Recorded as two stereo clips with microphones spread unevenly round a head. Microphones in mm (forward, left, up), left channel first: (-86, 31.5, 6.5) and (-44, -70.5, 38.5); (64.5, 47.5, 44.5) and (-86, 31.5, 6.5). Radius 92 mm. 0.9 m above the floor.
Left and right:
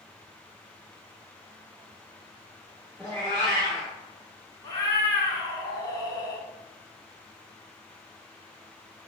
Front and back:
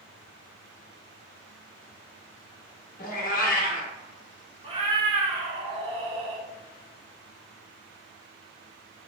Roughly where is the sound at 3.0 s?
Ahead left.